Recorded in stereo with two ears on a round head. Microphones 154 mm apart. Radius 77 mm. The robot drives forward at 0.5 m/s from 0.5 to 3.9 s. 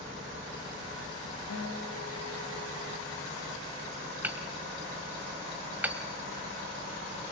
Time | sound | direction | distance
1.5 | a guitar | 75° left (ahead or behind) | 7.5 m
4.2 | hammering | 10° right (ahead or behind) | 2 m